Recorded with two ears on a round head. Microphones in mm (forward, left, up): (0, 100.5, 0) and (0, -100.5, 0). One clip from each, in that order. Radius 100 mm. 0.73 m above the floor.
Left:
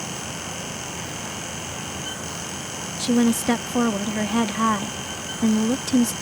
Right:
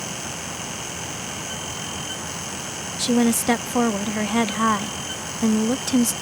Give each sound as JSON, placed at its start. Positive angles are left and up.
{"t": 3.0, "sound": "a woman speaking", "side_deg": -20}